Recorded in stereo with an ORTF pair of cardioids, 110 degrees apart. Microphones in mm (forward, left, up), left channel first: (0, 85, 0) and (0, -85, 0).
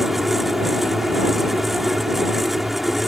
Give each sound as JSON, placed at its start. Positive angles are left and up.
{"t": 0.0, "sound": "a fan", "azimuth_deg": 0}